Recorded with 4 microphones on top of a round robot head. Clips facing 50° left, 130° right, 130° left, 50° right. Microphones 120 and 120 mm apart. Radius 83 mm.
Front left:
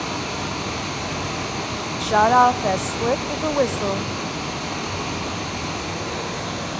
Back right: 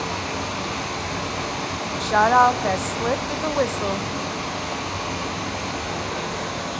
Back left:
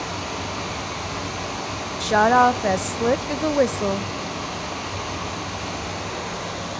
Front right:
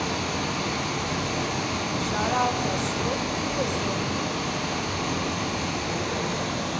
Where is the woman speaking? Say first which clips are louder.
Front left 1 dB, back left 10 dB; 130° left, 0.5 m.